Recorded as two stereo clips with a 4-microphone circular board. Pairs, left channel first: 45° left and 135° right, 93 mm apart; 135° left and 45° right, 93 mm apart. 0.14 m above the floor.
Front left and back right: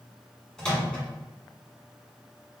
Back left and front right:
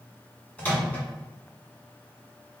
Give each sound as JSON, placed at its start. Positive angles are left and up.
{"t": 0.6, "sound": "a microwave", "azimuth_deg": 110, "distance_m": 1.3}